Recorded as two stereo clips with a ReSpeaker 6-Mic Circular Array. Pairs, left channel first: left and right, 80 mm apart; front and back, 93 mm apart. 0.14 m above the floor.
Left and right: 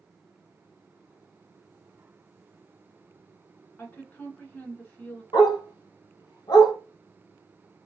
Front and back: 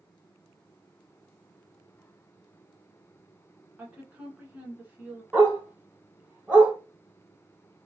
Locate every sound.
3.8 s a woman speaking: 130° left, 1.4 m
5.3 s a dog barking: 105° left, 1.6 m